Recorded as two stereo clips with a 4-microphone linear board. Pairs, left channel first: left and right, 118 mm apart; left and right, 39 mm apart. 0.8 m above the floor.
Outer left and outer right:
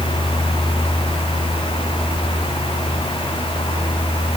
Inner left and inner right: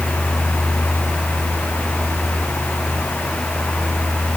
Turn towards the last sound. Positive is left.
No sound to turn to.